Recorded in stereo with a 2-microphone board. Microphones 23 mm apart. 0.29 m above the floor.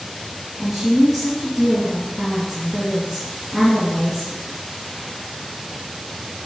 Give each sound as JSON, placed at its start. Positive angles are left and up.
{"t": 0.6, "sound": "a woman speaking", "side_deg": -25, "distance_m": 2.5}